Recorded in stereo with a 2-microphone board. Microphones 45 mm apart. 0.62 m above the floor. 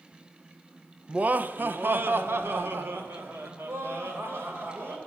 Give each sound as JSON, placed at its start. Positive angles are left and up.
{"t": 1.1, "sound": "laughter", "side_deg": -30, "distance_m": 0.6}